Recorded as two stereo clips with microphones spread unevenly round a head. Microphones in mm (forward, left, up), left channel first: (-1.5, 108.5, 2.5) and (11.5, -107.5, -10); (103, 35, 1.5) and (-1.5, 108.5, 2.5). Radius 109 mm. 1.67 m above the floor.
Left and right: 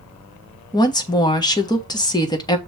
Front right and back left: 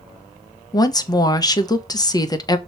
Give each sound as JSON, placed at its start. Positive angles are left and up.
{"t": 0.7, "sound": "a woman speaking", "azimuth_deg": 25, "distance_m": 1.3}